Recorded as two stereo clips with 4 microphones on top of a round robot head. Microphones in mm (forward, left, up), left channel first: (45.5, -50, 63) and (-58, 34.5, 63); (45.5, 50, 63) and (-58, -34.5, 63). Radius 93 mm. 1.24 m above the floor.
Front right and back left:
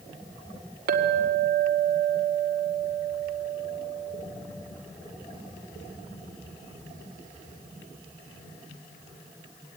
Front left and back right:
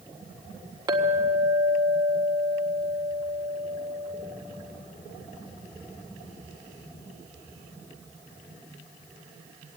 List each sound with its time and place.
0.9 s a clink: 155° left, 1.7 m